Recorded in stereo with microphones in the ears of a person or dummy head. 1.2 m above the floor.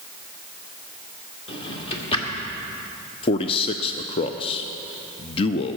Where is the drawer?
30° left (ahead or behind), 1.8 m.